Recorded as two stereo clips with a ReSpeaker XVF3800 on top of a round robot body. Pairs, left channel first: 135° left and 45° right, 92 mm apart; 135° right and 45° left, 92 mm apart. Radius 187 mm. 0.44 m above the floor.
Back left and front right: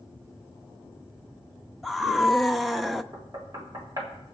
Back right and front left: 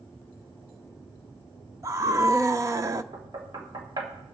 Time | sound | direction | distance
1.8 | a scream | 45° left | 0.9 m
3.1 | knocking | 5° left | 1.7 m